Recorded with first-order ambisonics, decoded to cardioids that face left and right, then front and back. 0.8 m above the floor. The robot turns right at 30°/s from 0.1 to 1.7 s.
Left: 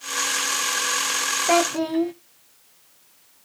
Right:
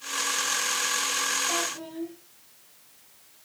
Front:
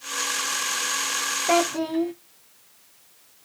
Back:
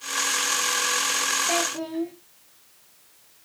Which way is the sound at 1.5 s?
60° left.